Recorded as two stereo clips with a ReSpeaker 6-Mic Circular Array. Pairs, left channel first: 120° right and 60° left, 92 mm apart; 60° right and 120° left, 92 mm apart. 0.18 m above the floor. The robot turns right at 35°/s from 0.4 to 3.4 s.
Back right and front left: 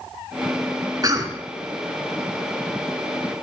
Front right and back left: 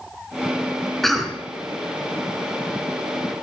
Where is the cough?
25° left, 2.0 m; by 1.4 s 40° left, 2.0 m.